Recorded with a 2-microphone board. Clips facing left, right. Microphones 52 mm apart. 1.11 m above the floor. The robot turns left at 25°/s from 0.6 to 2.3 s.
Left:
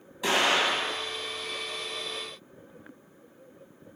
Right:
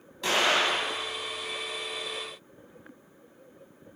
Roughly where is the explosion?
Centre.